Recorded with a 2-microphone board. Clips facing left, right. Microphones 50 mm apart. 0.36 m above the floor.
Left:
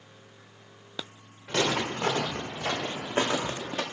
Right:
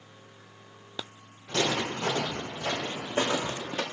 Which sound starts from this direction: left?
Footsteps, at 1.5 s.